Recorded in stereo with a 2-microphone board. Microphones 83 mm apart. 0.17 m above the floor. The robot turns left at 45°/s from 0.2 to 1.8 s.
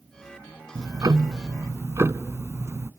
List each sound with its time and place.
0.8 s ticking: 80° right, 0.8 m; by 2.9 s 130° right, 0.8 m